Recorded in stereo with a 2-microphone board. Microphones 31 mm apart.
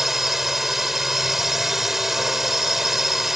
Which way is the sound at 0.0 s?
10° right (ahead or behind).